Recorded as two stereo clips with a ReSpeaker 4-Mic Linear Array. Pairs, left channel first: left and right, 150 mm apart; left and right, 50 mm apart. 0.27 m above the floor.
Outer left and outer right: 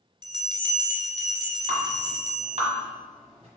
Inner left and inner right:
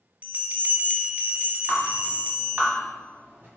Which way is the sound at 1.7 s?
45° right (ahead or behind).